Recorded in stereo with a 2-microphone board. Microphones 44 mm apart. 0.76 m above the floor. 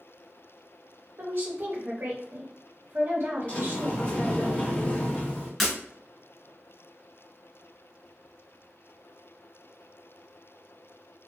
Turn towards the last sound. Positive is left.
turn(degrees=0)  # may be behind; listen again after turning